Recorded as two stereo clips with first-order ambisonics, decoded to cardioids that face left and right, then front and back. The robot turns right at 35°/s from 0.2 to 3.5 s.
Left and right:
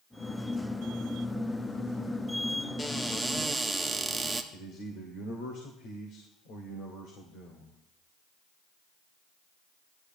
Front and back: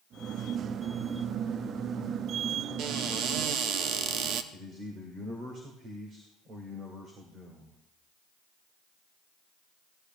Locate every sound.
2.8 s a cupboard door: 165° left, 0.8 m; by 4.4 s 170° right, 0.8 m
4.5 s a man speaking: 120° left, 1.9 m